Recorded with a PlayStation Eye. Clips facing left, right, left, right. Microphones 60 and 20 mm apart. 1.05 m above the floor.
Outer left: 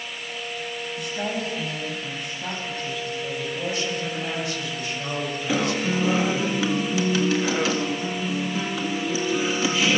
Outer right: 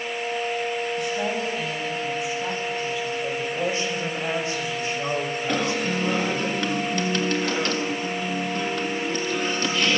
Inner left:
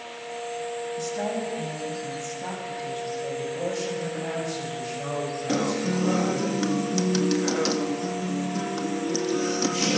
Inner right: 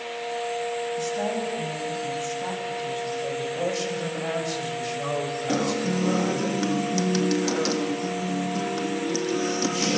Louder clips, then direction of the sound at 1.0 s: Outer right 3 dB, inner right 2 dB; centre (ahead or behind).